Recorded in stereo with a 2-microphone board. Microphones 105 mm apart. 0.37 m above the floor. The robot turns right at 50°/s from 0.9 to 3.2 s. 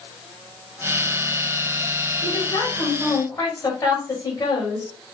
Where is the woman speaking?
80° left, 2.0 m; by 4.9 s 130° left, 2.0 m.